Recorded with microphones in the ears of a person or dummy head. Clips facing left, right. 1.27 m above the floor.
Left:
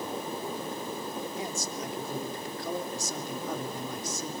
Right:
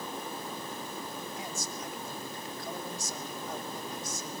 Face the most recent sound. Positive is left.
turn(degrees=70)  # may be behind; listen again after turning